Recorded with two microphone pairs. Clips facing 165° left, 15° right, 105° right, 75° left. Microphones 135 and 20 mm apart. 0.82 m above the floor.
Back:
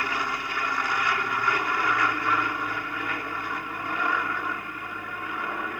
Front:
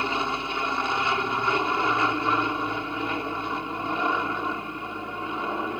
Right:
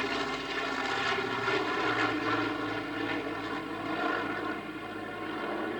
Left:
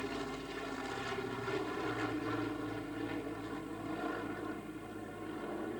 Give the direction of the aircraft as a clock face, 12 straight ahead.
3 o'clock.